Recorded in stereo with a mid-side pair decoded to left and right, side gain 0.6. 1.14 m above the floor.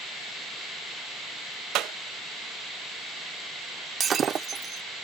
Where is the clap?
65° right.